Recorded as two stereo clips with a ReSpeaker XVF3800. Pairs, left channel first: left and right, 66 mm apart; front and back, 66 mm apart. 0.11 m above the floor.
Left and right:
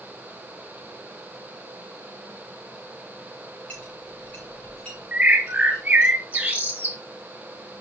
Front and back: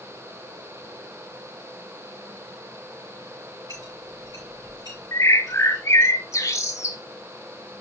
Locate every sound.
3.7 s a clink: 160° left, 5.5 m
5.1 s a bird: 30° right, 1.5 m